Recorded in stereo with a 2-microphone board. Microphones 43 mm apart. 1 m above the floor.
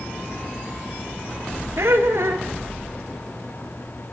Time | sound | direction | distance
1.8 | laughter | 75° right (ahead or behind) | 3 m